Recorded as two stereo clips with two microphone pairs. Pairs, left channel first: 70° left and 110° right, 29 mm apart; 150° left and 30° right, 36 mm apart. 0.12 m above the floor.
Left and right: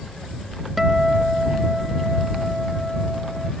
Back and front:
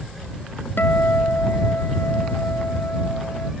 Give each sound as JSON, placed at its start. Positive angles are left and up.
{"t": 0.8, "sound": "a guitar", "azimuth_deg": 165}